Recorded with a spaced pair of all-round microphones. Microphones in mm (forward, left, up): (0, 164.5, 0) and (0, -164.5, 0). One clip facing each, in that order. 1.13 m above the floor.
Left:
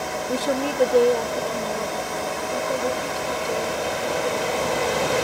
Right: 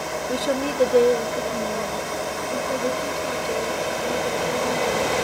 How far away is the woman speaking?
About 0.5 m.